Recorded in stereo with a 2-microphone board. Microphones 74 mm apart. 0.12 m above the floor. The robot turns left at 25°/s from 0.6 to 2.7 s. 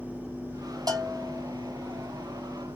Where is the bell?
55° right (ahead or behind), 2.5 m; by 1.4 s 40° right (ahead or behind), 2.5 m.